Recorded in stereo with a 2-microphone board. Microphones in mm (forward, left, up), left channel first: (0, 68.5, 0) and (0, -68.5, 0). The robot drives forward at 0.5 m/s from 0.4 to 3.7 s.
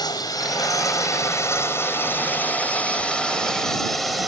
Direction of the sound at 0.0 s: 30° left (ahead or behind).